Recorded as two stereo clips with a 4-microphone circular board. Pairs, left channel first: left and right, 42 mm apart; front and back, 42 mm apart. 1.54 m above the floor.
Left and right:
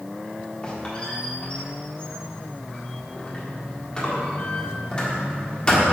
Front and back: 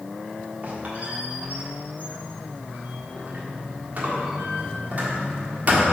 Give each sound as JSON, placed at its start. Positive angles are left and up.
{"t": 0.6, "sound": "a squeak", "azimuth_deg": 145, "distance_m": 1.5}